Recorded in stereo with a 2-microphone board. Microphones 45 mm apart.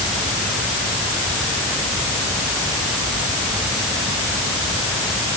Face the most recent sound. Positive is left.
No sound to turn to.